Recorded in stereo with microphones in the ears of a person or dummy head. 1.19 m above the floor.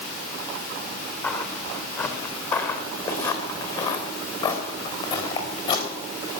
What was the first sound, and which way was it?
Footsteps, 10° left (ahead or behind).